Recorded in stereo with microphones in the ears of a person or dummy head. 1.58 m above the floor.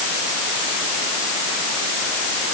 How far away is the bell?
I don't hear a bell.